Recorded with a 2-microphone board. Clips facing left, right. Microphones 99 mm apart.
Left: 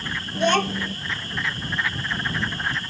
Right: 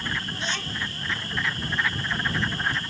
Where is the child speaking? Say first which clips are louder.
Left 11 dB; 60° left (ahead or behind).